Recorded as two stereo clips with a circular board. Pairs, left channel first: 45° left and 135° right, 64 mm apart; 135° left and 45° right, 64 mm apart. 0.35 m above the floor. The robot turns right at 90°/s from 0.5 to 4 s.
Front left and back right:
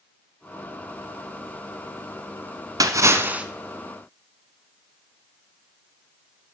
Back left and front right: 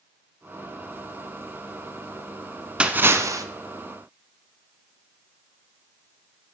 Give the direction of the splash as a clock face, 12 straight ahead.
4 o'clock.